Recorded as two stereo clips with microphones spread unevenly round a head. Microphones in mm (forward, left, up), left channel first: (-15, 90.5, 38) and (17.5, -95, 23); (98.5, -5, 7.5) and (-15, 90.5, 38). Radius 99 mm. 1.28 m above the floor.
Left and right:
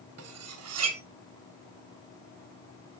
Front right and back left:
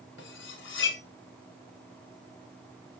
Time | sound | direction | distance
0.2 | cutlery clinking | 70° right | 0.8 m